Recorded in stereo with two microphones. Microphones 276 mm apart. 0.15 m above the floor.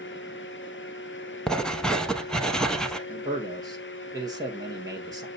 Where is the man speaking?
15° right (ahead or behind), 2.5 m.